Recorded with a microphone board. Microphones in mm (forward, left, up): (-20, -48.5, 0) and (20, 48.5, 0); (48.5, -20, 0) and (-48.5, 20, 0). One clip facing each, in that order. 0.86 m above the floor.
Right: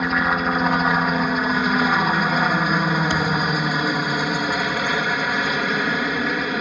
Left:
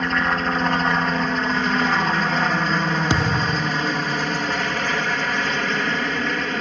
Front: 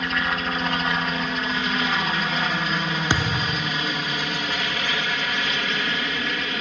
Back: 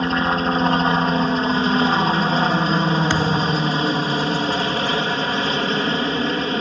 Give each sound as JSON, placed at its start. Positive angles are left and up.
{"t": 0.0, "sound": "a helicopter", "azimuth_deg": 170}
{"t": 3.1, "sound": "a thud", "azimuth_deg": 50}